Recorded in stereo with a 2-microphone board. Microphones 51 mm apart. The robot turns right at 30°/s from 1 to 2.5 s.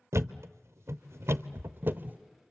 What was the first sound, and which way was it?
A thud, 65° right (ahead or behind).